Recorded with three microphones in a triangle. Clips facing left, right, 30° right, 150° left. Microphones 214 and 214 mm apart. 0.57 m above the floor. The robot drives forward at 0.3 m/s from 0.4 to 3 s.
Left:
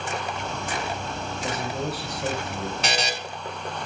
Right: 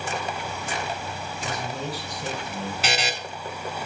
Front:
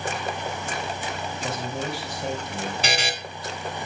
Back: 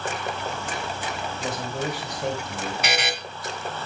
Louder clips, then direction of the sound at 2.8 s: Even, back 1 dB; 5° right.